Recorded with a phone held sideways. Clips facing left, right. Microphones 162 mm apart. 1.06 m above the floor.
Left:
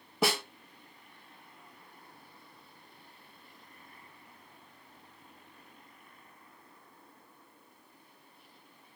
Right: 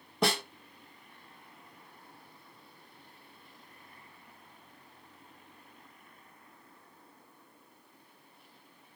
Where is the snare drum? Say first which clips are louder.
Even; 5° left (ahead or behind), 1.2 m.